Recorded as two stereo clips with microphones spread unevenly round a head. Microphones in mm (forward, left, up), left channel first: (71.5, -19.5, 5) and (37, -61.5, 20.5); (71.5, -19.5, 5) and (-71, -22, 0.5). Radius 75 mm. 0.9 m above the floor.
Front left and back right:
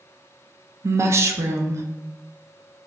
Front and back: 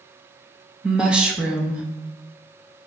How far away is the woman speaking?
About 0.6 m.